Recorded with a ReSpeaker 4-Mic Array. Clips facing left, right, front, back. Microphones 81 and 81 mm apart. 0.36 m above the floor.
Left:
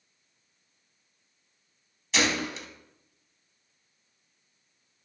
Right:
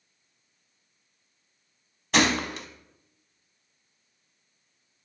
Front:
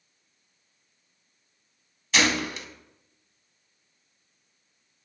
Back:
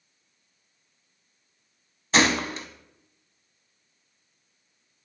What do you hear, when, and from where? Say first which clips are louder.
2.1 s a gunshot: right 4 dB, back 3 dB; 125° right, 0.6 m